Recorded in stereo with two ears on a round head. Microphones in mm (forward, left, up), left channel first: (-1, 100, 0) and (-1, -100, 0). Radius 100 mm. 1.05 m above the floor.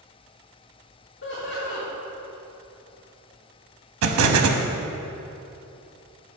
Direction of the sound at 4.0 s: 70° right (ahead or behind).